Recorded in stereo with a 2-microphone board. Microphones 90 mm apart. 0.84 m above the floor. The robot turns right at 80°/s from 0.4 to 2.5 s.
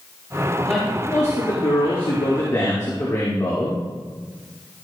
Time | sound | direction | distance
0.7 | a man speaking | 10° right | 2.5 m